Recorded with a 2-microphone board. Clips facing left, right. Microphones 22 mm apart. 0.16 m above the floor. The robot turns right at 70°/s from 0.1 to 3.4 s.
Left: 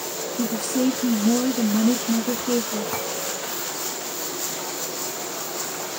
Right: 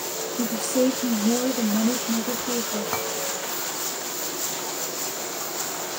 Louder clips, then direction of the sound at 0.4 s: Right 1 dB; 25° right.